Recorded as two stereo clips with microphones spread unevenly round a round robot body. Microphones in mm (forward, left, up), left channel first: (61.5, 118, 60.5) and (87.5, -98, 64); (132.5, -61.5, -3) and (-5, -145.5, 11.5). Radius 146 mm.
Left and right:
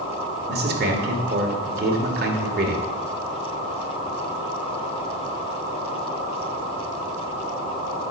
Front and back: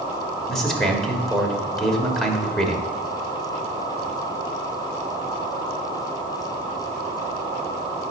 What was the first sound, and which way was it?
A man speaking, 55° right.